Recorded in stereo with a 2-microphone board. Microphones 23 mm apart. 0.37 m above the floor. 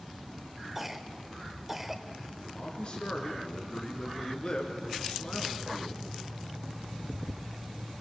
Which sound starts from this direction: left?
A man speaking, at 2.5 s.